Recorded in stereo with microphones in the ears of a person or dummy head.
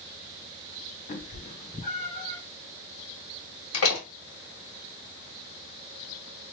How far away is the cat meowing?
About 1.2 m.